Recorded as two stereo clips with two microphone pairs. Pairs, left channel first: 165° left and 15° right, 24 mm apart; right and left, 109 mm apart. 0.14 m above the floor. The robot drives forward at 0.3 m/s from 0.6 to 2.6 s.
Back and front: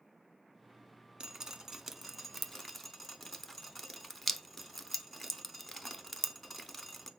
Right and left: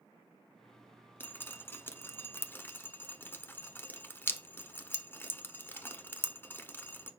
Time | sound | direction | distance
1.2 | dripping | 40° right | 0.6 m